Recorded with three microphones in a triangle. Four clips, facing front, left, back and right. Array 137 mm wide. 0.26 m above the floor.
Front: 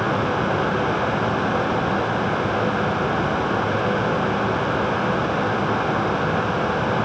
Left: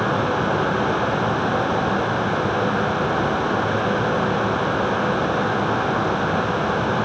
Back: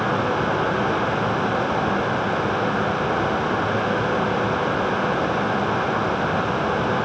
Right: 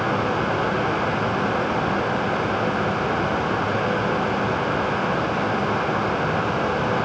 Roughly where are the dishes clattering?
No dishes clattering in this recording.